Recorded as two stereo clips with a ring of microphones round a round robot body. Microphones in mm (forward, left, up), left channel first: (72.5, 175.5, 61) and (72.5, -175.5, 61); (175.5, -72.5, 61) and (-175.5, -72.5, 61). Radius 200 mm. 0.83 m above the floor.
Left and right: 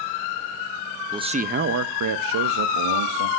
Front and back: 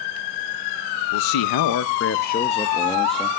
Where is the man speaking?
10° right, 0.7 m; by 3.3 s 90° right, 1.0 m.